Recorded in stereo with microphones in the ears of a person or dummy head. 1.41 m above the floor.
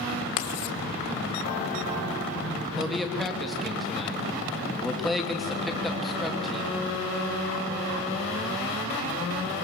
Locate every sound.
0.4 s writing: 55° left (ahead or behind), 1.5 m
2.8 s a man speaking: centre (ahead or behind), 3 m